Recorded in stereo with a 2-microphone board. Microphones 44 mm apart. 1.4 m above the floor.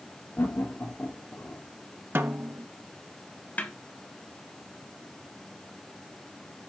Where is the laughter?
55° left (ahead or behind), 4 m; by 1.6 s 45° left (ahead or behind), 5 m.